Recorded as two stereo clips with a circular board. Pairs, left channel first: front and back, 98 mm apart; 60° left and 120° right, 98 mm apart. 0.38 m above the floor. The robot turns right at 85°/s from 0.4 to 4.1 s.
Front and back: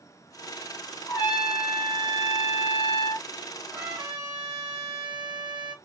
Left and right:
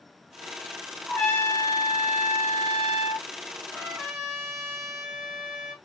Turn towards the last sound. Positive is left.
turn(degrees=150)